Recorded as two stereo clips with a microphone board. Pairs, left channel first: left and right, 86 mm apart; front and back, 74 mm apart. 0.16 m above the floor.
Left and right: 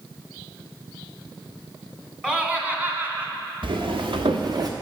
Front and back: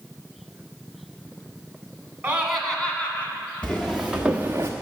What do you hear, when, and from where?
2.2 s laughter: 155° right, 1.2 m; by 3.3 s 40° right, 1.5 m
3.6 s footsteps: 75° right, 1.5 m; by 4.7 s 130° right, 1.0 m